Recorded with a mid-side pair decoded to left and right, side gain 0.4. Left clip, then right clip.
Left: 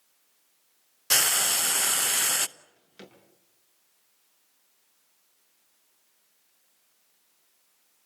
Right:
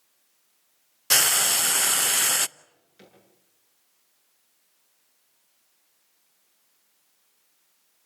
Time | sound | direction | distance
1.1 | frying | 20° right | 0.7 m
2.6 | a drawer | 65° left | 8 m